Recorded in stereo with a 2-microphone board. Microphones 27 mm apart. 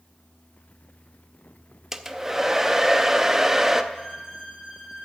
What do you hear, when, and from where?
1.9 s a hair dryer: 15° right (ahead or behind), 0.6 m
3.9 s a violin: 20° right (ahead or behind), 4.5 m